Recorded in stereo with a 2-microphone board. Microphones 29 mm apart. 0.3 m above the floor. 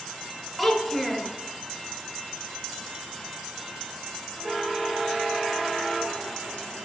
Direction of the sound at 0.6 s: 5° right (ahead or behind).